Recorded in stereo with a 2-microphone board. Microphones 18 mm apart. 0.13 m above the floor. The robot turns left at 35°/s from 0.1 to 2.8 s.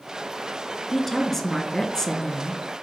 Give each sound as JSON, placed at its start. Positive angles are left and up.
{"t": 0.9, "sound": "a woman speaking", "azimuth_deg": 175, "distance_m": 1.6}